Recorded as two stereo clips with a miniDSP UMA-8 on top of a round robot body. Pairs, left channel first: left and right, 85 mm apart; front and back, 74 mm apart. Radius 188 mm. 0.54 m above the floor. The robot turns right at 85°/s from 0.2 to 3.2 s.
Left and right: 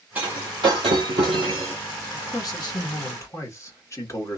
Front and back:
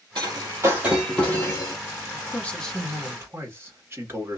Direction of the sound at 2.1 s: 40° left.